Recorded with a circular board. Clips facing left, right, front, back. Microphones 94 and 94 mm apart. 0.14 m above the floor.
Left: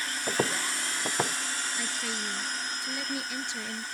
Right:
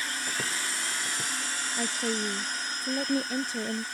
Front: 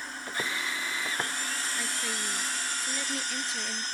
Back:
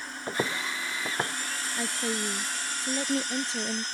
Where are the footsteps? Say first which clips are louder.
Left 5 dB, back 4 dB; 125° left; by 1.4 s 105° left.